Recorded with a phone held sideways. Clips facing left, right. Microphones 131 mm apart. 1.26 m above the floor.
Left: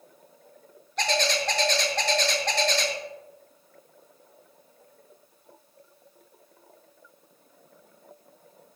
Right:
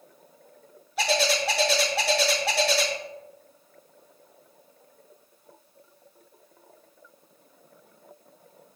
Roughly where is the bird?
Centre.